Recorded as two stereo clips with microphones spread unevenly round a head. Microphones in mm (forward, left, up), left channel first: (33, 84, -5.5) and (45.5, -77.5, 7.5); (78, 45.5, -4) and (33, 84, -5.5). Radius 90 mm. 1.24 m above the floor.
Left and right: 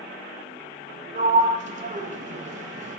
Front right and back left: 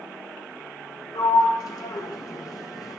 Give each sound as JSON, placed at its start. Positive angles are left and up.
{"t": 1.1, "sound": "a sliding door", "azimuth_deg": -45, "distance_m": 0.8}